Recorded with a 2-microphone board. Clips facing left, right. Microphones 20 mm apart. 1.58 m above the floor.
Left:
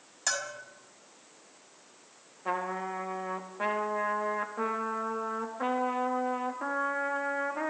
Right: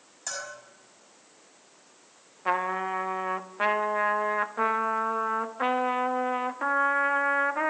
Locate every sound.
0.3 s a bell: 35° left (ahead or behind), 5 m
2.5 s a trumpet: 40° right (ahead or behind), 1.4 m